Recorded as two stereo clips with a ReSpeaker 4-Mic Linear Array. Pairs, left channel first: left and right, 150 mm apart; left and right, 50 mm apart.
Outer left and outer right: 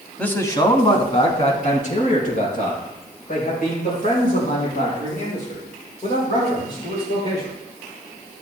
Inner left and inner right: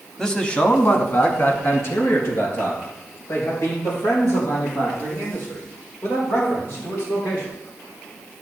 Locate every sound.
0.2 s a man speaking: 10° left (ahead or behind), 1.3 m; by 7.5 s 70° left (ahead or behind), 9.5 m